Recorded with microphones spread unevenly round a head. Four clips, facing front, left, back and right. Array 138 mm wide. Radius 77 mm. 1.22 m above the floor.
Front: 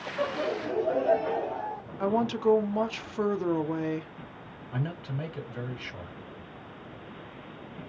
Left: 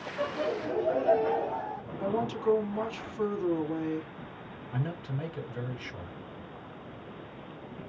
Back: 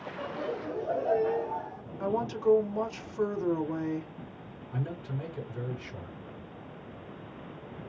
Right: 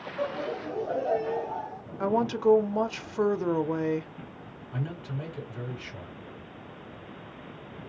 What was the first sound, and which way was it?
Laughter, 5° left.